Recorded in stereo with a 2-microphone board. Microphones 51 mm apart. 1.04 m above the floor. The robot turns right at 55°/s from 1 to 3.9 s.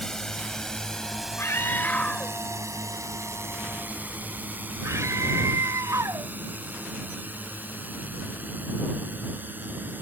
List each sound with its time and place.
0.0 s a drone: 10° left (ahead or behind); by 10.0 s 35° right (ahead or behind)
1.4 s a scream: 60° left (ahead or behind); by 6.3 s 80° right